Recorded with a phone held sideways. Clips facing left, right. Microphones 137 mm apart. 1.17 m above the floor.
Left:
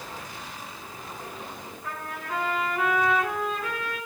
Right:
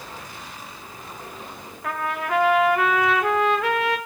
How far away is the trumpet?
About 0.8 m.